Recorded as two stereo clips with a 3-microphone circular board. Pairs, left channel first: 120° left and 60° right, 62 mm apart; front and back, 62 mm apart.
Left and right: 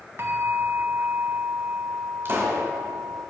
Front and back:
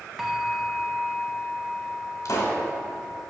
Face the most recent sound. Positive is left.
turn(degrees=-10)